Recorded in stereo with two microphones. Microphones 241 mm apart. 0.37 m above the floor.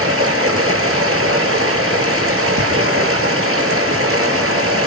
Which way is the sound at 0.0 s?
70° right (ahead or behind).